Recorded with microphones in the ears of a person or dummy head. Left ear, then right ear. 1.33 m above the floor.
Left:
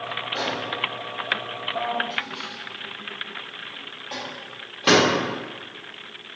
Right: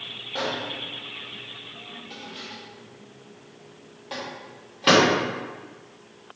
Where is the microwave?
5° right (ahead or behind), 1.5 m.